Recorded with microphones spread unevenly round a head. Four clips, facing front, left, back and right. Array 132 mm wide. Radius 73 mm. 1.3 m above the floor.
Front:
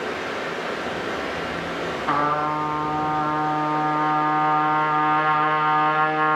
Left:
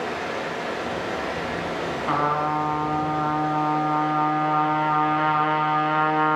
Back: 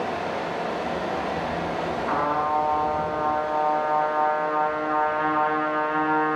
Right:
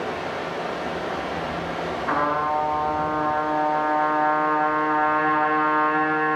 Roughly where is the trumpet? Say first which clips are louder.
Even, front 2 dB; ahead left.